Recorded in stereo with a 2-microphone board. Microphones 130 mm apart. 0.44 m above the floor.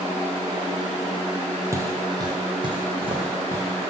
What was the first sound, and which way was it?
Footsteps, 25° right (ahead or behind).